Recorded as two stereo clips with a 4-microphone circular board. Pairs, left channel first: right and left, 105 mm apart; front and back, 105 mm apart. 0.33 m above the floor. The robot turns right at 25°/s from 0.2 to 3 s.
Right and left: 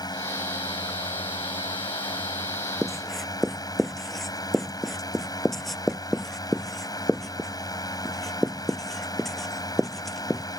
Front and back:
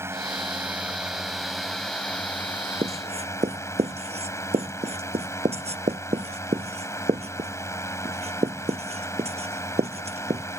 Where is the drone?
125° right; by 10.6 s 55° right.